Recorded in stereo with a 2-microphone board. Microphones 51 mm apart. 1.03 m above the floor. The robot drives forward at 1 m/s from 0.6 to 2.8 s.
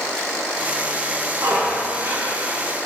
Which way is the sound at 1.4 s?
60° right (ahead or behind).